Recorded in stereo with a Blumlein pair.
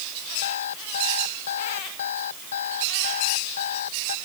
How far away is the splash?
I don't hear a splash.